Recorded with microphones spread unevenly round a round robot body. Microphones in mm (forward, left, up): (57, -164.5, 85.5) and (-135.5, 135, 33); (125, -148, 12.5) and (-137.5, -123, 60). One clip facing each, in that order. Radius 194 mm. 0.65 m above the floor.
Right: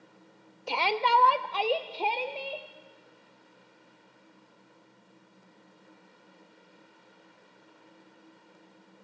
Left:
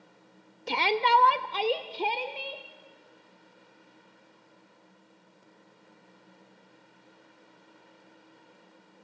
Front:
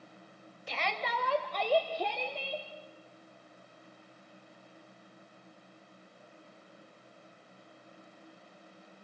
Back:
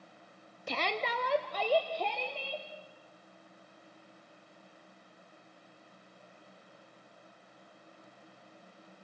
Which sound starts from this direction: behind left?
A shout, at 0.7 s.